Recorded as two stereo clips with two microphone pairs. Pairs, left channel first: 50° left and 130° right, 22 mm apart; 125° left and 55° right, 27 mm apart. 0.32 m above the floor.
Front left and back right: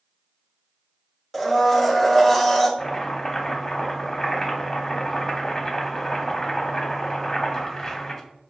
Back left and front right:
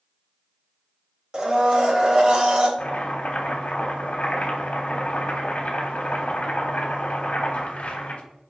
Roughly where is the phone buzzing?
No phone buzzing in this recording.